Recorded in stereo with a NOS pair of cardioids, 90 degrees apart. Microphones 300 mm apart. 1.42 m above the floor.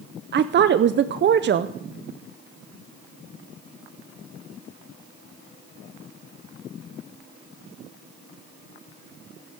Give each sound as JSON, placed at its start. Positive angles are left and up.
{"t": 0.3, "sound": "a woman speaking", "azimuth_deg": -40, "distance_m": 0.6}